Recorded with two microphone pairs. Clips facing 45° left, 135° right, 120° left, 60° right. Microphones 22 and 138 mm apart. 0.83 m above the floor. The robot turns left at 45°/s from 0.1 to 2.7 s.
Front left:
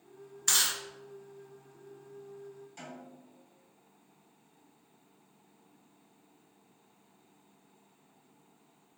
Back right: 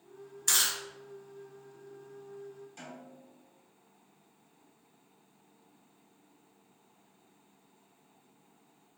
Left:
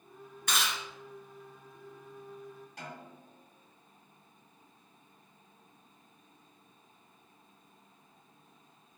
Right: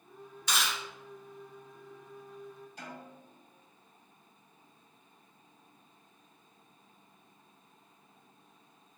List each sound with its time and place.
0.5 s chewing: 125° left, 1.3 m; by 0.8 s 115° left, 1.3 m
2.8 s a snare drum: 135° left, 2.0 m